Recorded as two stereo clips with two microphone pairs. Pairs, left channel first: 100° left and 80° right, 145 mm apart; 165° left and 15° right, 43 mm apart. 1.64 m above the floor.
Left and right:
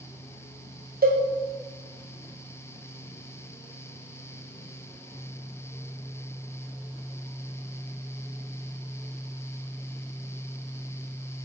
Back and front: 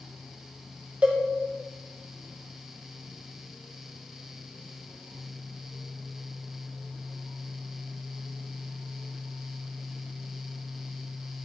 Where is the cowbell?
80° right, 0.9 m.